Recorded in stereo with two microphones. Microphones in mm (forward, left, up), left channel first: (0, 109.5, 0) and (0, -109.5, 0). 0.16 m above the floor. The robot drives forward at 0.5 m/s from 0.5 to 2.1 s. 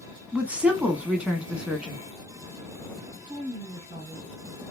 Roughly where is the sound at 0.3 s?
Centre.